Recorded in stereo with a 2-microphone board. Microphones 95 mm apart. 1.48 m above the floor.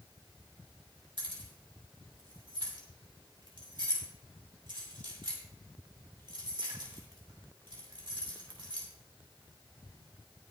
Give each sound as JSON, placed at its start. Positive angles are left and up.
{"t": 1.2, "sound": "keys jangling", "side_deg": -60, "distance_m": 2.5}